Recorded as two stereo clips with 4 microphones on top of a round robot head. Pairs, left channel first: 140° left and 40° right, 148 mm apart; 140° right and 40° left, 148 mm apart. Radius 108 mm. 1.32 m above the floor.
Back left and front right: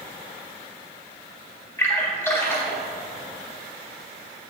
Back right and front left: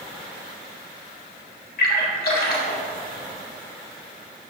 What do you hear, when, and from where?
1.8 s a splash: 150° right, 1.5 m